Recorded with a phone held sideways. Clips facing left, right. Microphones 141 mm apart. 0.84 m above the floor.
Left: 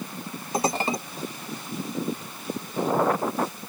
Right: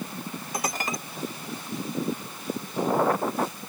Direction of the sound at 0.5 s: 30° left (ahead or behind).